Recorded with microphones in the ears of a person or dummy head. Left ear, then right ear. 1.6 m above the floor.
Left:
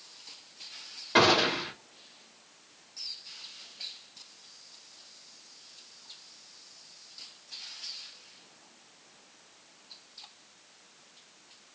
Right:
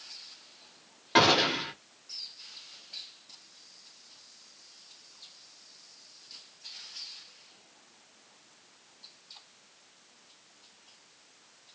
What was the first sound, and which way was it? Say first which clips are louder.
A gunshot: even; 15° right (ahead or behind).